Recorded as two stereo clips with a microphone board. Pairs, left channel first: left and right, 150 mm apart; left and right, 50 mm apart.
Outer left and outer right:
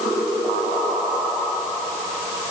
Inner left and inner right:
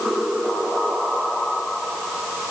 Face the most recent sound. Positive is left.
No sound to turn to.